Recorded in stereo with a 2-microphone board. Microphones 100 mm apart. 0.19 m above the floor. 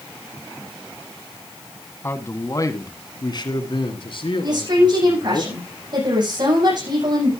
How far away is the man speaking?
About 1.6 m.